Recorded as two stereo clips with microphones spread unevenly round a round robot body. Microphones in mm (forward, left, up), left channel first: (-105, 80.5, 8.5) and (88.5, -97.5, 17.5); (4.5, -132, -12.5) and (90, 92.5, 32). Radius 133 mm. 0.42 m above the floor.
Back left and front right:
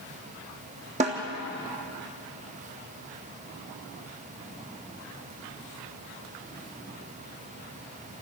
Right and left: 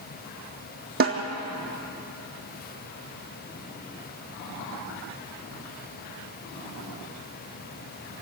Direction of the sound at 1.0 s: 20° left.